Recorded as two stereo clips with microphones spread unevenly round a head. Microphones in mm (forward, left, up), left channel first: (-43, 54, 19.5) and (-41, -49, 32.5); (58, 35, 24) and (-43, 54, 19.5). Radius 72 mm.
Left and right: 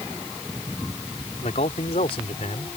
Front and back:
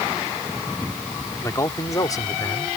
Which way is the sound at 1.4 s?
50° left.